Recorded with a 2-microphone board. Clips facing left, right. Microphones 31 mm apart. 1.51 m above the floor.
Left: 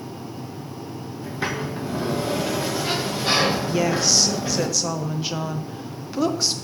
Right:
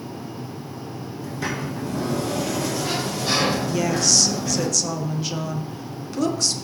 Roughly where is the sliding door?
Left.